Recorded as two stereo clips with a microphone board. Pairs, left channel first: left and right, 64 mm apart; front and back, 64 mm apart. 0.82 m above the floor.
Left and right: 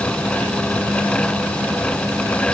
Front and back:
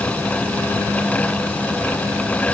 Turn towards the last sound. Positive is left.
No sound to turn to.